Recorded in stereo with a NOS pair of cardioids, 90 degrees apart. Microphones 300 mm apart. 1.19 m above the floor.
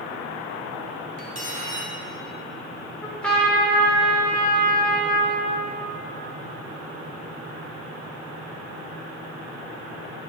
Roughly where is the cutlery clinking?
Ahead right.